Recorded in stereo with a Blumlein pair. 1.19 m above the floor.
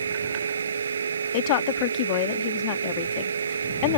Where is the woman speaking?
45° left.